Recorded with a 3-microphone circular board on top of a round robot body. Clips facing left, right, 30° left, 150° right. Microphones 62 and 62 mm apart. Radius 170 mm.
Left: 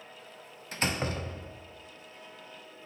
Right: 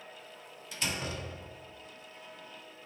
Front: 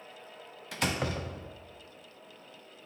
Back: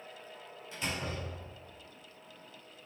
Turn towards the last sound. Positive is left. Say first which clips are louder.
# left 5 dB, front 6 dB
turn(degrees=40)